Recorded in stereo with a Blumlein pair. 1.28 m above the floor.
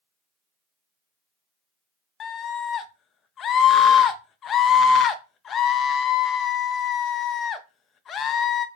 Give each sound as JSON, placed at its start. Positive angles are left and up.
{"t": 2.2, "sound": "a scream", "azimuth_deg": 25, "distance_m": 0.5}